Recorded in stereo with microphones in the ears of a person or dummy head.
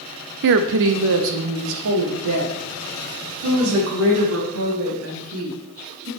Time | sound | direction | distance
0.4 | a woman speaking | 60° right (ahead or behind) | 0.5 m